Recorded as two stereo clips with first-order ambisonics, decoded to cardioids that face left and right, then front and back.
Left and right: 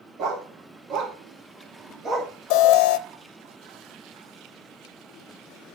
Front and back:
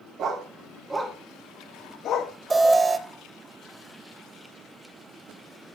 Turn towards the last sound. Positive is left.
turn(degrees=105)